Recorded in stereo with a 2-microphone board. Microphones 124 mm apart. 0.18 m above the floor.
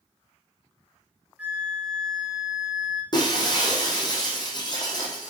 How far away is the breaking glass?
About 3.5 m.